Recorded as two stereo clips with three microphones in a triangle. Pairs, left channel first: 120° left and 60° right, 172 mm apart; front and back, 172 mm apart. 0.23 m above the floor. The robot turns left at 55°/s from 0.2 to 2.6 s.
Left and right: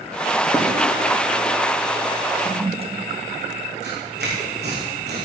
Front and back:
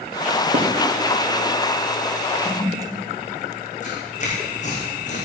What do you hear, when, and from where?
0.5 s writing: 165° right, 3 m; by 0.7 s 170° right, 3 m
2.4 s a toilet flushing: 100° right, 0.6 m; by 3.1 s 110° right, 0.6 m
3.8 s tearing paper: 45° right, 4.5 m